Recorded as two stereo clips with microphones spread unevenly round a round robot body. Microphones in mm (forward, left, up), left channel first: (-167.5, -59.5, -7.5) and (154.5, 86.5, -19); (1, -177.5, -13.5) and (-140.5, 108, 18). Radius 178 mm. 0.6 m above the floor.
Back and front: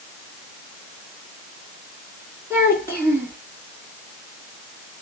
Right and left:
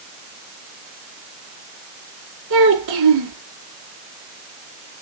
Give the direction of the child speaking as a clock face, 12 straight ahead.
8 o'clock.